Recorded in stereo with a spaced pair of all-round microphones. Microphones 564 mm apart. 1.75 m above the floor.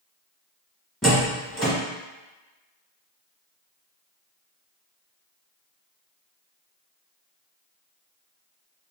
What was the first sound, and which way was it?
A door slam, centre (ahead or behind).